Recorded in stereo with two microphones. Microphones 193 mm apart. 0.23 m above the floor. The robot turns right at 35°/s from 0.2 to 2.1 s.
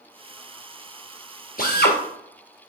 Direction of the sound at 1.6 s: 50° left (ahead or behind).